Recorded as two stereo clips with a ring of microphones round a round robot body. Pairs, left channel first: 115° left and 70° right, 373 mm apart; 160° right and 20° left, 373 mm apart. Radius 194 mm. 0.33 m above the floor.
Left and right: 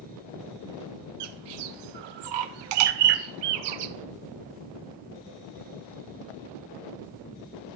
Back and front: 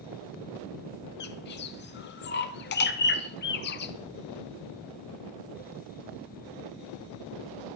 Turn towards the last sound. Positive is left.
turn(degrees=-95)